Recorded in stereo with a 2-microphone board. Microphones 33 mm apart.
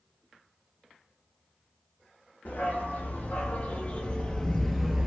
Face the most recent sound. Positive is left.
turn(degrees=-15)  # may be behind; listen again after turning